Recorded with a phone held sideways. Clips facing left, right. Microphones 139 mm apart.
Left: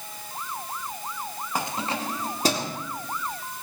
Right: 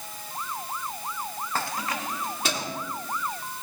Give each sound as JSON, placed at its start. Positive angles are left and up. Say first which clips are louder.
{"t": 1.6, "sound": "keys jangling", "louder": "left 3 dB", "side_deg": 15, "distance_m": 0.6}